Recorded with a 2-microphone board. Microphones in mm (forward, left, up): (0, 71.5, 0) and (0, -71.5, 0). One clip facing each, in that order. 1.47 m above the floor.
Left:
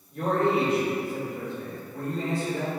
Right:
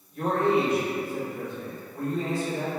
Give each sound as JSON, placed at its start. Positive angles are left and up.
{"t": 0.1, "sound": "a man speaking", "side_deg": 65, "distance_m": 1.8}